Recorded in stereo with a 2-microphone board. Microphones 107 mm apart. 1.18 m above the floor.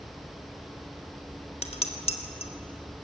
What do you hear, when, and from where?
1.6 s dishes clattering: 65° left (ahead or behind), 1.9 m